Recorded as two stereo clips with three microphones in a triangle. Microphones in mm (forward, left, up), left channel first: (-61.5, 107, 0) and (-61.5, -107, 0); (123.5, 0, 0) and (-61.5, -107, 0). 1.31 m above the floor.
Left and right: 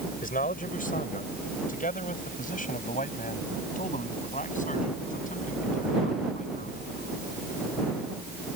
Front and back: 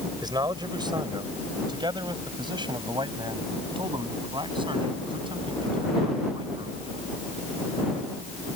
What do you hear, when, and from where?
0.2 s a man speaking: 140° left; by 6.8 s 145° left